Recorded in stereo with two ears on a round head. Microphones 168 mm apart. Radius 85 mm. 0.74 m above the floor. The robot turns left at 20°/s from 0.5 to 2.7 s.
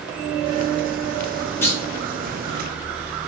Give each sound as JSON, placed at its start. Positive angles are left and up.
{"t": 1.6, "sound": "a clunk", "side_deg": 10, "distance_m": 0.8}